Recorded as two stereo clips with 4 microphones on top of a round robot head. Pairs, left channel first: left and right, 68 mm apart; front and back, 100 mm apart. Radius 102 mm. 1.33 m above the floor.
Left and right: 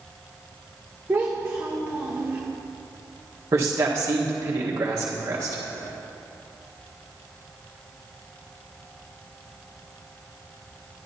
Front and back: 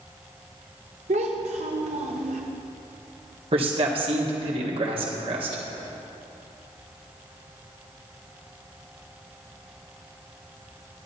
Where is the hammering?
I don't hear hammering.